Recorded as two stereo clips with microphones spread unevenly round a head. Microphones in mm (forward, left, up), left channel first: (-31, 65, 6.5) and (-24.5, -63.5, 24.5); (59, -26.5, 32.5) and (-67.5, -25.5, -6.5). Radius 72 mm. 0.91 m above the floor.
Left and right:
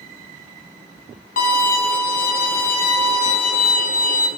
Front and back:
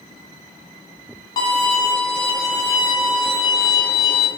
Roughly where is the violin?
Ahead left.